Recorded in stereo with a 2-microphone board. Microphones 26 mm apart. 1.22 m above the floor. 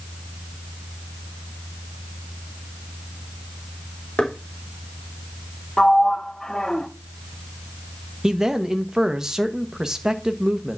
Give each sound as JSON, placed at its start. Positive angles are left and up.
{"t": 4.2, "sound": "knocking", "side_deg": 35, "distance_m": 3.0}
{"t": 5.8, "sound": "a sliding door", "side_deg": 25, "distance_m": 0.8}
{"t": 8.2, "sound": "a man speaking", "side_deg": -25, "distance_m": 1.2}